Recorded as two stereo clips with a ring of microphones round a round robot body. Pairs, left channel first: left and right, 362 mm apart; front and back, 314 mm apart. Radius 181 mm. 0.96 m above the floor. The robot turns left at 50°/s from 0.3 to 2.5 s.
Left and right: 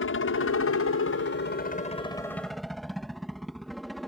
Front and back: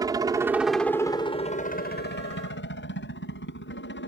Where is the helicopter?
110° left; by 4.1 s straight ahead.